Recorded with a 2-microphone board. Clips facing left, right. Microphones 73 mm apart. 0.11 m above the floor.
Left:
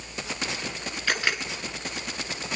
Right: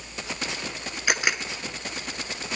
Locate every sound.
1.1 s a camera shutter: 15° right (ahead or behind), 0.9 m